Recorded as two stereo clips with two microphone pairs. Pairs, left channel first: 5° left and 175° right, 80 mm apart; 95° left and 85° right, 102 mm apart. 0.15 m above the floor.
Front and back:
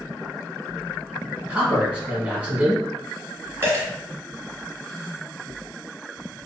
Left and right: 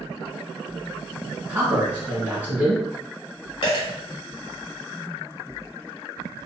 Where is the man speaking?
125° right, 1.3 m.